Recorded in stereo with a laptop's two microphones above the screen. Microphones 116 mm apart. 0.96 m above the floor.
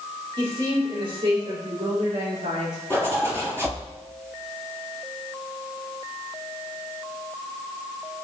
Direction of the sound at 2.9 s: 20° right (ahead or behind).